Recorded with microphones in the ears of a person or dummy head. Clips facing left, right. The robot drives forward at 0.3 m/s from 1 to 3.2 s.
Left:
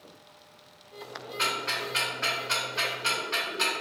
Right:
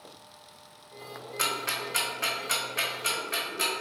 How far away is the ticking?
About 1.0 m.